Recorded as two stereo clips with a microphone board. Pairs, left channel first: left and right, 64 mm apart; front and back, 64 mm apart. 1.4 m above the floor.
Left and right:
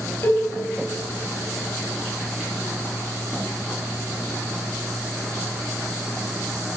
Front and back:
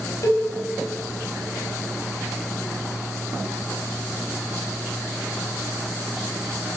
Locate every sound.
0.2 s a cowbell: 40° left, 4 m